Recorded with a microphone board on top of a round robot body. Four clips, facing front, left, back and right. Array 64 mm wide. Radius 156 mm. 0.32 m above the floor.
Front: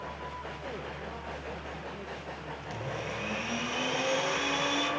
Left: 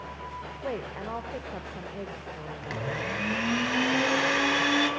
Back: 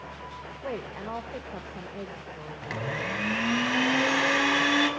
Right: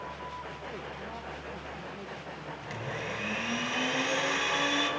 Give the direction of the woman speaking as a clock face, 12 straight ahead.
7 o'clock.